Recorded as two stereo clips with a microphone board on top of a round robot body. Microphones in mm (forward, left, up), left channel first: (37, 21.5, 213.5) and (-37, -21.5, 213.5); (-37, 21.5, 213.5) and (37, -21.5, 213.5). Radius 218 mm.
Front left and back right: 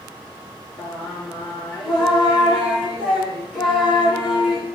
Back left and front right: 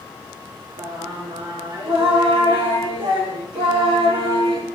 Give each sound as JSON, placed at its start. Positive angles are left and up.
{"t": 0.8, "sound": "singing", "azimuth_deg": -55, "distance_m": 7.0}